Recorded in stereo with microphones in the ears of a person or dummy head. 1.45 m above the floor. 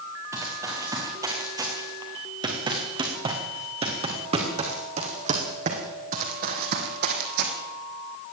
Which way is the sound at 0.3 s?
20° right (ahead or behind).